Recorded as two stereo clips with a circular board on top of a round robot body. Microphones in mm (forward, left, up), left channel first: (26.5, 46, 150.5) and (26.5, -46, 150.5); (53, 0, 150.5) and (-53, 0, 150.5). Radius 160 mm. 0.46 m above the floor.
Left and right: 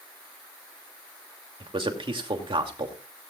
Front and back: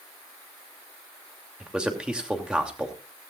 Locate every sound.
1.6 s a man speaking: 100° right, 2.5 m